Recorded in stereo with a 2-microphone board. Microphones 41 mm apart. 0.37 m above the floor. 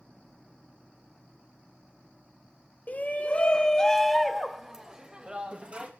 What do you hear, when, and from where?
2.9 s a shout: 45° left (ahead or behind), 1.1 m; by 5.9 s 35° right (ahead or behind), 1.6 m